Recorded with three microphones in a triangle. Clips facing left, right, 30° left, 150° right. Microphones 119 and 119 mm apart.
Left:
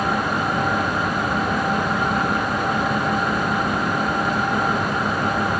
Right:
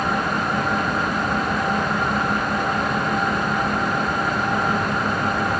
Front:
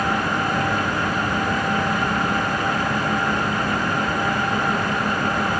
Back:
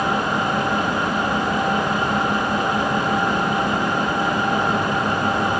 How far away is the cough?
No cough in this recording.